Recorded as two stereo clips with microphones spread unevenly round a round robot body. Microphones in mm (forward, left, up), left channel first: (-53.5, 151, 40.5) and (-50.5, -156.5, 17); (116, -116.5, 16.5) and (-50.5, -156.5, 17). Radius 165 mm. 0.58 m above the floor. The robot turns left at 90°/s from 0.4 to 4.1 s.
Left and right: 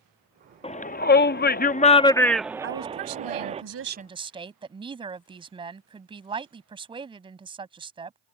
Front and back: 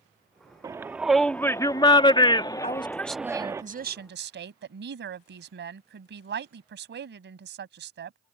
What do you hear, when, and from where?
0.6 s a shout: 150° left; by 3.6 s 120° right
2.6 s a woman speaking: 30° right; by 8.2 s 165° right